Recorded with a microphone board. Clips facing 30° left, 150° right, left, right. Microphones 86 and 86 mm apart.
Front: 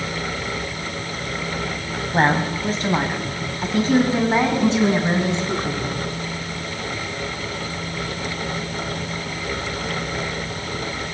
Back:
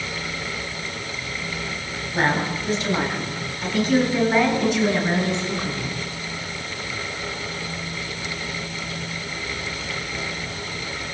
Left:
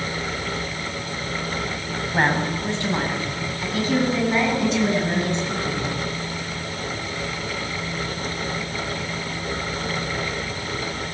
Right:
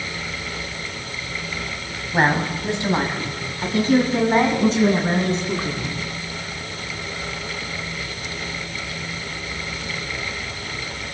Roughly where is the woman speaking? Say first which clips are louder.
Front 3 dB, right 2 dB; ahead.